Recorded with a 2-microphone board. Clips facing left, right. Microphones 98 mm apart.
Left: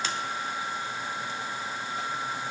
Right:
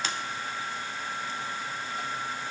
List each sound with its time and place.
Only background noise.